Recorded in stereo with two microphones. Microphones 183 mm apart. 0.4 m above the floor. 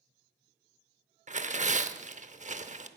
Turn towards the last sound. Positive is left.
turn(degrees=-40)  # may be behind; listen again after turning